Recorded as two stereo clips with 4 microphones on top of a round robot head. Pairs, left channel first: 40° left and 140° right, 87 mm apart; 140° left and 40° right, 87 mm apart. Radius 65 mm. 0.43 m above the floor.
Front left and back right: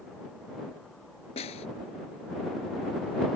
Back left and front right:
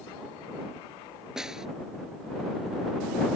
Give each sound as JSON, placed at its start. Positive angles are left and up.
{"t": 1.4, "sound": "a snare drum", "azimuth_deg": 40}